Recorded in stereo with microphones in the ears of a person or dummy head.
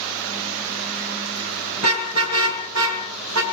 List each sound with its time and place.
1.8 s a car horn: 65° right (ahead or behind), 7.5 m; by 3.4 s 80° right, 6 m